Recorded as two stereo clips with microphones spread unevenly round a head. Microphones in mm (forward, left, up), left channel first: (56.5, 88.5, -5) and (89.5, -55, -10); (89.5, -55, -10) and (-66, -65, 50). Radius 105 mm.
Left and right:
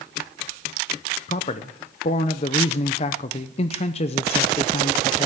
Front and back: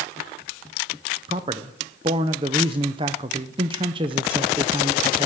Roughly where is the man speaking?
Behind left.